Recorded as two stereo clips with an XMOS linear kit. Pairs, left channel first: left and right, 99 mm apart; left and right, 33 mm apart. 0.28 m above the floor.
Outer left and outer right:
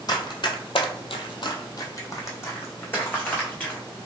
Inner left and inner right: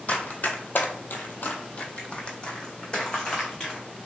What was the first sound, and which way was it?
Running footsteps, 45° left (ahead or behind).